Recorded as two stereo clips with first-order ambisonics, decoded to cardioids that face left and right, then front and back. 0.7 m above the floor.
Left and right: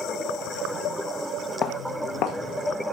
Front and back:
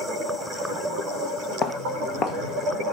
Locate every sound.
1.6 s footsteps: 45° left, 1.3 m; by 2.8 s 65° left, 2.5 m